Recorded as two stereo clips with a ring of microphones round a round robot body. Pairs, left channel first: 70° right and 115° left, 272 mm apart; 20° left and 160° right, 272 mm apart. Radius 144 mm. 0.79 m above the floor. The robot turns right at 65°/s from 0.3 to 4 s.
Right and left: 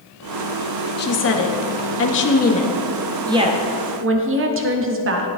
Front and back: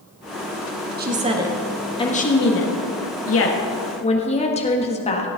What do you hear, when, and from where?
1.0 s a woman speaking: 110° right, 1.6 m; by 5.3 s 85° left, 1.6 m